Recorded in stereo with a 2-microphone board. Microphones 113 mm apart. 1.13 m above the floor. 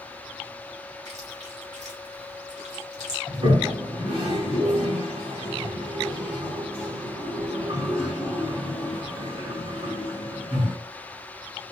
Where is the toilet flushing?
45° right (ahead or behind), 2 m.